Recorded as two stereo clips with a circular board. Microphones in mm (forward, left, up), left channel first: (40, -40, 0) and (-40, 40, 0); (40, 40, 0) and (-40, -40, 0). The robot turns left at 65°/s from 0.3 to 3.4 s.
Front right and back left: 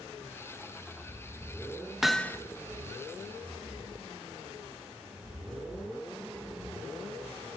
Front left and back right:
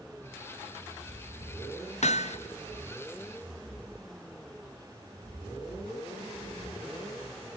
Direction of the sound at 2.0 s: 50° left.